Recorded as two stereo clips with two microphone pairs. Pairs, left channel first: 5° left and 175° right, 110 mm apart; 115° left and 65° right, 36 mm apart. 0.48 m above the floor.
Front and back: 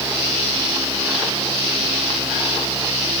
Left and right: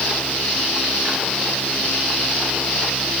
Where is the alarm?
No alarm in this recording.